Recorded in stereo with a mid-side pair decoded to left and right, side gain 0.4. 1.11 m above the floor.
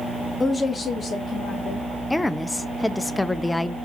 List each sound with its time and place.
0.4 s a woman speaking: 25° left, 0.9 m; by 1.9 s 65° left, 2.5 m
2.1 s a woman speaking: 20° left, 0.7 m